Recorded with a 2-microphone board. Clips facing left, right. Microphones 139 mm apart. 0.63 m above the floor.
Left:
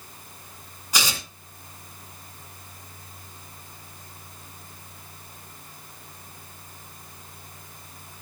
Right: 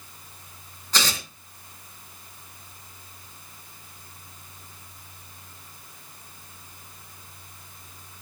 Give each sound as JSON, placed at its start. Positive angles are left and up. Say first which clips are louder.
{"t": 0.9, "sound": "tearing paper", "louder": "right 1 dB", "side_deg": 10, "distance_m": 3.0}